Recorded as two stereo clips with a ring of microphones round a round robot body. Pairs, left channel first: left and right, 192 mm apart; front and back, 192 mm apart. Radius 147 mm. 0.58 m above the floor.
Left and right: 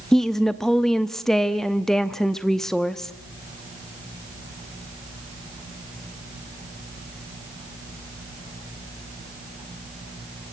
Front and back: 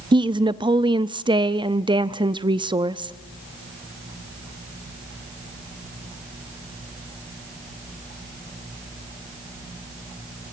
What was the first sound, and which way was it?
A woman speaking, 175° left.